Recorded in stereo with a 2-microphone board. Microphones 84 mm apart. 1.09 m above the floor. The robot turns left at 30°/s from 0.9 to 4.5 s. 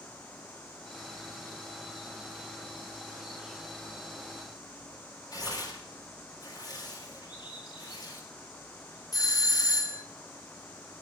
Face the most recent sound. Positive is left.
turn(degrees=40)  # may be behind; listen again after turning